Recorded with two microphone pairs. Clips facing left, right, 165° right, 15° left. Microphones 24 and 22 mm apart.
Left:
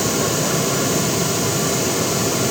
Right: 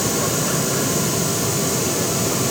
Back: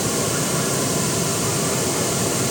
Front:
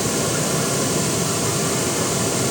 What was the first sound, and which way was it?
Only background noise.